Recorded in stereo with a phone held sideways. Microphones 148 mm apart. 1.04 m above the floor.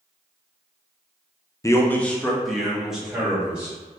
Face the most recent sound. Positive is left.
turn(degrees=-5)  # may be behind; listen again after turning